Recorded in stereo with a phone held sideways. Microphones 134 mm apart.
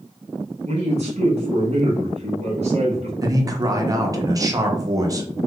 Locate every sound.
0.7 s a man speaking: 50° right (ahead or behind), 1.3 m
3.2 s a man speaking: 25° right (ahead or behind), 0.6 m